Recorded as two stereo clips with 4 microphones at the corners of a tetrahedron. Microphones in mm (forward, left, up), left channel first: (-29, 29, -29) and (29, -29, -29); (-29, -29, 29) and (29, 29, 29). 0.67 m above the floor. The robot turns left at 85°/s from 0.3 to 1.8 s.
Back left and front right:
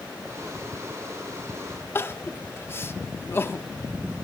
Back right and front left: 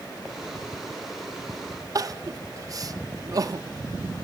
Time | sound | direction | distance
1.9 | crying | 80° left | 0.7 m